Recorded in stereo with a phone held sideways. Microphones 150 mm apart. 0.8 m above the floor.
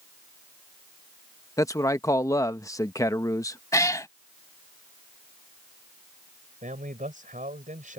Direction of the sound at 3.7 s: 20° left (ahead or behind).